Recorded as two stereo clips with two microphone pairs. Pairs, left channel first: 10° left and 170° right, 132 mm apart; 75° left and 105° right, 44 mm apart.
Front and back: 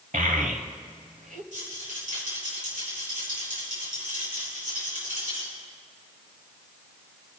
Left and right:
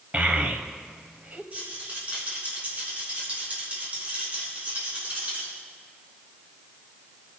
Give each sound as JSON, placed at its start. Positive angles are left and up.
{"t": 0.1, "sound": "a child speaking", "azimuth_deg": -165, "distance_m": 1.3}
{"t": 1.5, "sound": "a rattle", "azimuth_deg": -165, "distance_m": 5.0}